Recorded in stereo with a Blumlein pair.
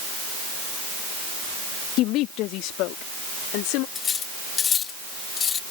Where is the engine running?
I don't hear an engine running.